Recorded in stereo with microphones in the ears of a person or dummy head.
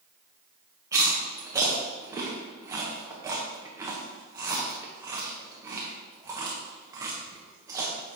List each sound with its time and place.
0.9 s chewing: 15° right (ahead or behind), 1.1 m